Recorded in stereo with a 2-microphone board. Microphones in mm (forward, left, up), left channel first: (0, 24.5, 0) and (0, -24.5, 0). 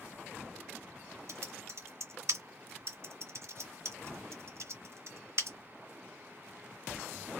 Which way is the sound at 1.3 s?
60° right (ahead or behind).